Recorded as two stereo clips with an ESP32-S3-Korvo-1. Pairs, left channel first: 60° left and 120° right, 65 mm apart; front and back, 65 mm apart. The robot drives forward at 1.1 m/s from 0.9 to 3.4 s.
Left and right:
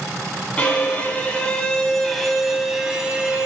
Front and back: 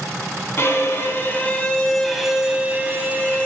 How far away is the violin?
About 2 m.